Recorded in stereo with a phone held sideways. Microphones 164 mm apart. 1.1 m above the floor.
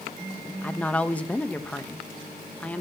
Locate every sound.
0.6 s a woman speaking: 10° left (ahead or behind), 0.8 m